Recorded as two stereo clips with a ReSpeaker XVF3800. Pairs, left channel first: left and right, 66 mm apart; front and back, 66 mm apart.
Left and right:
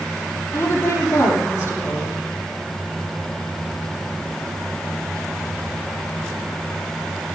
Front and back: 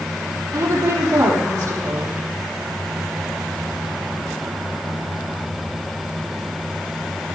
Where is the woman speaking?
140° left, 7 m.